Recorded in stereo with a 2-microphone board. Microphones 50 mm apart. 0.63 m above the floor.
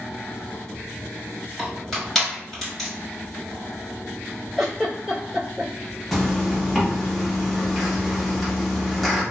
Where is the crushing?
5° left (ahead or behind), 1.6 m.